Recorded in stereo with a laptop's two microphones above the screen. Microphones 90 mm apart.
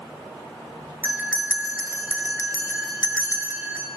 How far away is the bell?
About 4.5 m.